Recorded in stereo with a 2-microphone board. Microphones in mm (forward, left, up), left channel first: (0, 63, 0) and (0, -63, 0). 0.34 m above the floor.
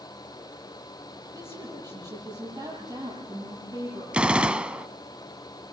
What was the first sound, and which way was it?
A woman speaking, 30° right (ahead or behind).